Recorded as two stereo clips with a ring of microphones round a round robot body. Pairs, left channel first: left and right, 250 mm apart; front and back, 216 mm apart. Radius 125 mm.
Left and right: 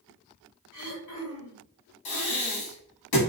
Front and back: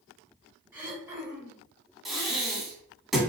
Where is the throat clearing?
100° left, 1.1 m.